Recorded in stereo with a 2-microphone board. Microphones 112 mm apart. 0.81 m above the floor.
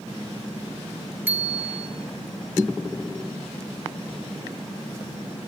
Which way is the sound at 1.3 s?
15° right (ahead or behind).